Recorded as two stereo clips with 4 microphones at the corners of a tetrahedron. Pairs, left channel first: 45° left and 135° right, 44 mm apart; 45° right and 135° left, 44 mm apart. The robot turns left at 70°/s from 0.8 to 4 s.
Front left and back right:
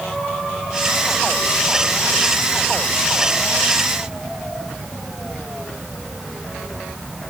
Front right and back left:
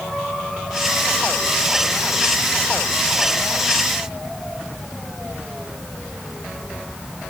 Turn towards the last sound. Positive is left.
No sound to turn to.